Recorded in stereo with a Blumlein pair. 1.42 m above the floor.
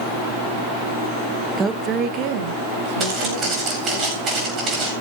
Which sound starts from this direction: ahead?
A woman speaking, at 1.6 s.